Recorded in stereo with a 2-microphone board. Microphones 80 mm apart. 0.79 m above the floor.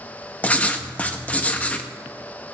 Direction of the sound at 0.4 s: 20° left (ahead or behind).